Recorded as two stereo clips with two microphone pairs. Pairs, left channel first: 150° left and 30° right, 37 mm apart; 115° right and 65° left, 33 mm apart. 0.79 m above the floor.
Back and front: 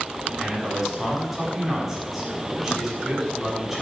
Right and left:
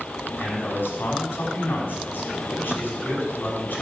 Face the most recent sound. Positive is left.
turn(degrees=-120)